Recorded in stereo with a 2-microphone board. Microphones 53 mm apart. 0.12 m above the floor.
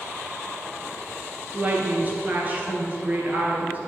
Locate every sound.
1.5 s a woman speaking: 35° right (ahead or behind), 1.8 m